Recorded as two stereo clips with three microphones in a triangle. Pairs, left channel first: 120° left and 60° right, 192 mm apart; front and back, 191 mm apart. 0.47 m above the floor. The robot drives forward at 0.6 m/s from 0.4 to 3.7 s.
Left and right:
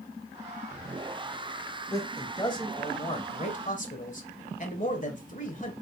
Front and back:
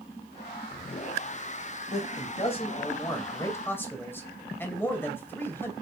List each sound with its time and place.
1.9 s a man speaking: 45° left, 2 m; by 5.7 s 75° left, 1.7 m